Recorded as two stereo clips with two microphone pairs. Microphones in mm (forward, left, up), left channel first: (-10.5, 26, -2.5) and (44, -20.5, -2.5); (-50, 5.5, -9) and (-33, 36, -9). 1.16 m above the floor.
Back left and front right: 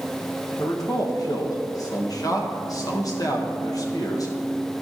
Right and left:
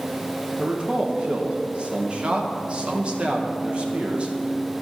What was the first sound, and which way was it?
A man speaking, 110° left.